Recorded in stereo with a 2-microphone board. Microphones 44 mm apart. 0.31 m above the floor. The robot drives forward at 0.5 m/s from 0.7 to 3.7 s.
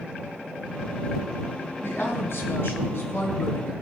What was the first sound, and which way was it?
A woman speaking, 65° left (ahead or behind).